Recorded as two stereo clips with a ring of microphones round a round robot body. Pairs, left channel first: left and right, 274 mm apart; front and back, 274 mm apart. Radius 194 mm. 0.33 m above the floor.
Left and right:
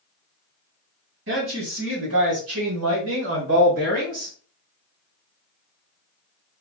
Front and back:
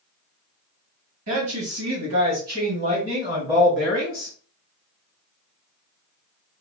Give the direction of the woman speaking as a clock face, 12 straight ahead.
5 o'clock.